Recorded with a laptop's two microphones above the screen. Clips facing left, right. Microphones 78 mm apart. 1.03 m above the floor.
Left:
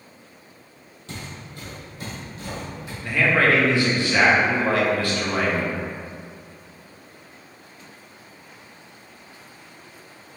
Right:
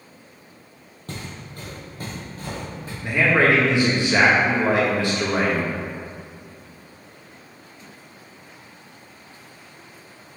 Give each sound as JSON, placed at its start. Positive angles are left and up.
{"t": 1.1, "sound": "footsteps", "side_deg": -50, "distance_m": 1.6}
{"t": 3.0, "sound": "a man speaking", "side_deg": -20, "distance_m": 1.3}